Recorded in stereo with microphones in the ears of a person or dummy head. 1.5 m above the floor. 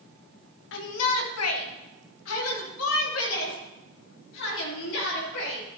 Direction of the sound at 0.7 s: 70° left (ahead or behind).